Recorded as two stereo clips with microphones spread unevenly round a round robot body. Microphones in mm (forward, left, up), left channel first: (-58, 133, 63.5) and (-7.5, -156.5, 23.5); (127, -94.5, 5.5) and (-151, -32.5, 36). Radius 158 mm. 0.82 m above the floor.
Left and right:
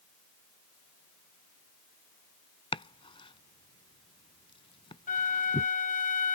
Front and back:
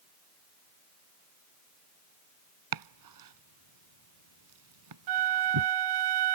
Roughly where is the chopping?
Behind.